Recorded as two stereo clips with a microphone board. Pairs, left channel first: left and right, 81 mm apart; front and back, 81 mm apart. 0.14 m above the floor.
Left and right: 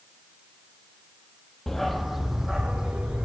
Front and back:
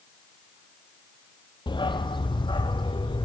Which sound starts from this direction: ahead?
A dog barking, at 1.7 s.